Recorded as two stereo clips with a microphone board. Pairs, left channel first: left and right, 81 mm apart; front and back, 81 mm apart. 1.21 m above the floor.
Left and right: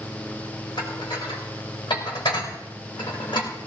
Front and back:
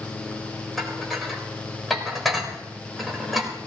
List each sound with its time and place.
0.8 s dishes clattering: 90° left, 4 m